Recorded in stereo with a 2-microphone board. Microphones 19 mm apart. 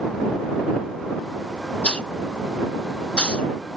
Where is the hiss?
75° left (ahead or behind).